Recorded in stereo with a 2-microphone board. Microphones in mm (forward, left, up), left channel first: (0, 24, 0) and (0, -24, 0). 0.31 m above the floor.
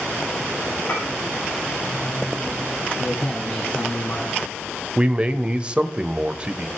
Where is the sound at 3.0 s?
30° left (ahead or behind), 2 m.